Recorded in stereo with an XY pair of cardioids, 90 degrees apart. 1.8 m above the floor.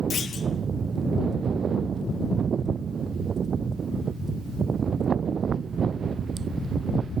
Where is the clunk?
55° left, 1.5 m.